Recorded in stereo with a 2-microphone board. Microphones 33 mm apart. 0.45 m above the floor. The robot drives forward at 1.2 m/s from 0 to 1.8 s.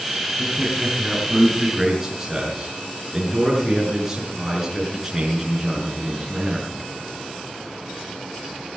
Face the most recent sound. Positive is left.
turn(degrees=-10)  # may be behind; listen again after turning